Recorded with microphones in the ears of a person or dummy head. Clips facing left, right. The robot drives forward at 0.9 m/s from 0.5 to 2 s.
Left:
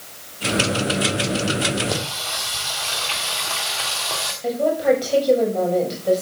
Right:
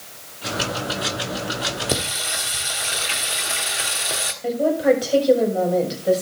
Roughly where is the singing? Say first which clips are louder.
Right 1 dB; right.